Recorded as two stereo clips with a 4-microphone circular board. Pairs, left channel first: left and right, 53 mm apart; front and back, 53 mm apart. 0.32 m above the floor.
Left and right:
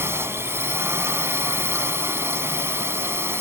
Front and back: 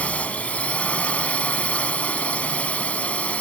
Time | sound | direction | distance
0.0 | a drone | 60° right | ?